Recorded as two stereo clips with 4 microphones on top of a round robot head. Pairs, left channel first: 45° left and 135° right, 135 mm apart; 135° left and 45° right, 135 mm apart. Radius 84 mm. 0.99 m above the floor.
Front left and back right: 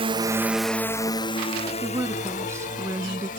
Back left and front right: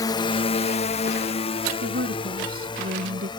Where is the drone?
170° right; by 3.4 s 75° left.